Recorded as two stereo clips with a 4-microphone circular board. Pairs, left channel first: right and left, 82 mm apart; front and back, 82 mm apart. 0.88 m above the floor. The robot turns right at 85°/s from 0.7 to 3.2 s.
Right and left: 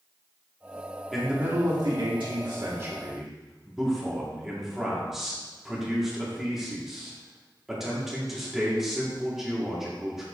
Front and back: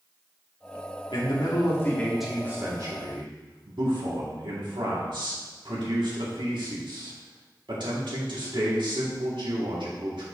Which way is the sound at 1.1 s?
Straight ahead.